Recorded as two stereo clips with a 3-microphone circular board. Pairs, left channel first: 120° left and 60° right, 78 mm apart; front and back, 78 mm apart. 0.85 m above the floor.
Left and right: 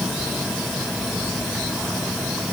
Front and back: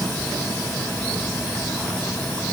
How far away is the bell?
I don't hear a bell.